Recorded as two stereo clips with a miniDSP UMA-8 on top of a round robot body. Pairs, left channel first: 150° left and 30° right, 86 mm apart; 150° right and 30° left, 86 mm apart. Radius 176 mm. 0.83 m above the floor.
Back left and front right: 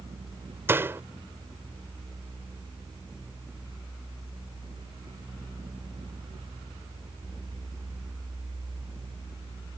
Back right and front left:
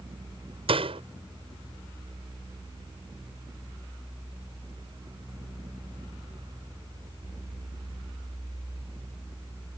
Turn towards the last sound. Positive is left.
turn(degrees=35)